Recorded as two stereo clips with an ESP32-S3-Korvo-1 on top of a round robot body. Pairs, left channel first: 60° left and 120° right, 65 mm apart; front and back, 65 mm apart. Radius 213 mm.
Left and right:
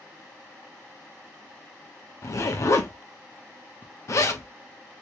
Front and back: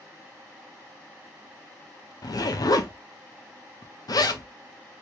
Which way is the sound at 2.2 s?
20° left.